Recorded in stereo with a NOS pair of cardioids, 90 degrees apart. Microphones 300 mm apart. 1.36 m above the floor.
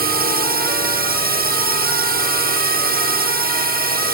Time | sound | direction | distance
0.0 | a drone | 30° right | ?